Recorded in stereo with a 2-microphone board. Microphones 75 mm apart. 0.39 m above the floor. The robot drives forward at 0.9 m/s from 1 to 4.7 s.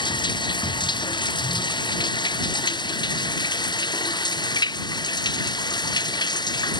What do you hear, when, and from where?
0.0 s running water: 80° left; by 6.8 s 70° left (ahead or behind)